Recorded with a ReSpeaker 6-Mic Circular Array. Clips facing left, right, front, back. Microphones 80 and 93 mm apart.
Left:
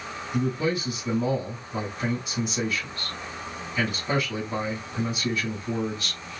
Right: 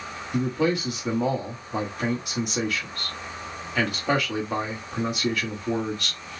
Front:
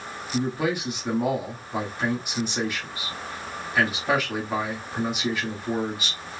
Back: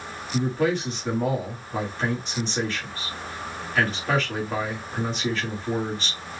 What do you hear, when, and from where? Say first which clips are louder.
0.3 s a man speaking: right 2 dB, back 2 dB; 80° right, 1.6 m